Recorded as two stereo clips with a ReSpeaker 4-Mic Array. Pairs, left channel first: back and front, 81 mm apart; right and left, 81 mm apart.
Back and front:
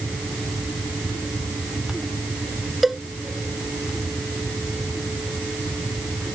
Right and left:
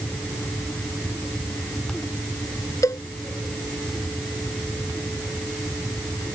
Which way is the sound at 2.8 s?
85° right.